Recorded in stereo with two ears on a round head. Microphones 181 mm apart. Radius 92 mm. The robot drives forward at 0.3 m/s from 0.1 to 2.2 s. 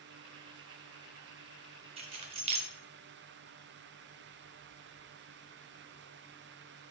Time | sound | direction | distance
2.0 | keys jangling | 30° right (ahead or behind) | 0.6 m